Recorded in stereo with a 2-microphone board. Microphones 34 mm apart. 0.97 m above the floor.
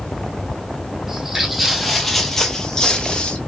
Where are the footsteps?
10° right (ahead or behind), 1.5 m; by 3.4 s 35° left (ahead or behind), 1.1 m.